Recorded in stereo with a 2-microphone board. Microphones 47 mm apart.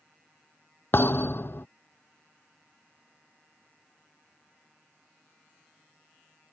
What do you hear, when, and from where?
0.9 s a thud: 50° left (ahead or behind)